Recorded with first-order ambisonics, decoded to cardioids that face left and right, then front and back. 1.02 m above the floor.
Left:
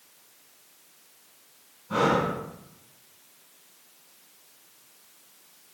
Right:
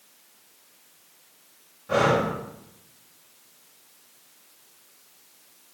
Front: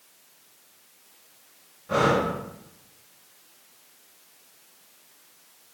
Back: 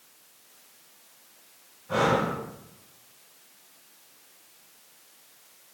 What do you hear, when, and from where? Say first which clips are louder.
1.9 s breathing: right 2 dB, front 2 dB; 65° right, 3.5 m